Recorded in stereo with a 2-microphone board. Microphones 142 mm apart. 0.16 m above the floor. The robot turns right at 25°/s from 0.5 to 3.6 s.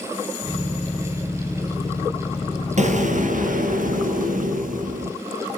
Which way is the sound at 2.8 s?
55° right (ahead or behind).